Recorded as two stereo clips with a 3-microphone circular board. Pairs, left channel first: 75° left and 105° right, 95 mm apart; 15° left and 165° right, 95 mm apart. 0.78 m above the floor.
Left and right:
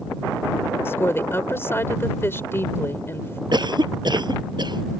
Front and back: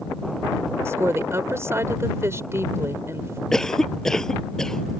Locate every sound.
0.8 s a woman speaking: 135° left
3.5 s a cough: 70° right